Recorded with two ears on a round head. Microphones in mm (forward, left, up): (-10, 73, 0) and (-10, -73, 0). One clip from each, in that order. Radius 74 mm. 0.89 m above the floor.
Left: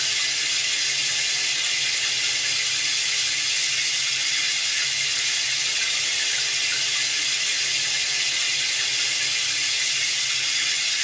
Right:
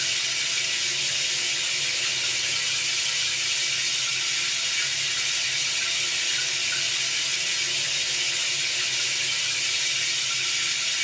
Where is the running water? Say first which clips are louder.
Left 2 dB; 25° left (ahead or behind), 0.8 m.